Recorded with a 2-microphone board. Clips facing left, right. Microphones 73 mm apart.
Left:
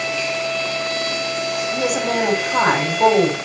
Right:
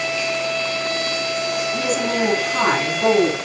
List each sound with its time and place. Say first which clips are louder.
1.7 s a woman speaking: left 3 dB; 75° left (ahead or behind), 7.5 m